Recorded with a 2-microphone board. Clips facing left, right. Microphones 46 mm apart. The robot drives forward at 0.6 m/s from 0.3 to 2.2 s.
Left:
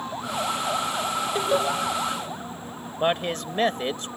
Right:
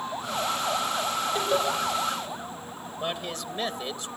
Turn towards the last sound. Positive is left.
turn(degrees=45)  # may be behind; listen again after turning